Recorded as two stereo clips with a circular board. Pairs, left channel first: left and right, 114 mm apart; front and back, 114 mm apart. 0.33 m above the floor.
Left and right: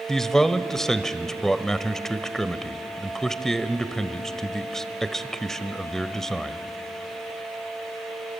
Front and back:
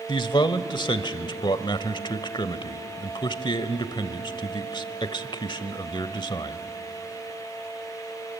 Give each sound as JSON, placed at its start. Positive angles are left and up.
{"t": 0.1, "sound": "a man speaking", "azimuth_deg": 5, "distance_m": 1.1}